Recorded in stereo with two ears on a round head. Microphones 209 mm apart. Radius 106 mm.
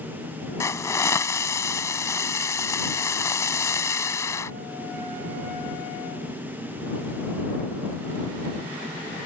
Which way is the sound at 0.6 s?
15° left (ahead or behind).